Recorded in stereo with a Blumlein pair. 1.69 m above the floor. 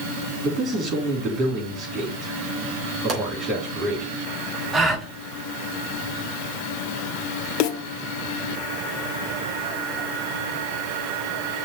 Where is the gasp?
10° right, 5 m.